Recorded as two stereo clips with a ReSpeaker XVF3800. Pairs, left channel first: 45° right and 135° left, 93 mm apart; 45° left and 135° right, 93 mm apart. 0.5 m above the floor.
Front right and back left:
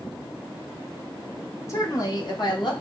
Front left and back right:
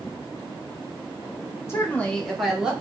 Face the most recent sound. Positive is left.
turn(degrees=-55)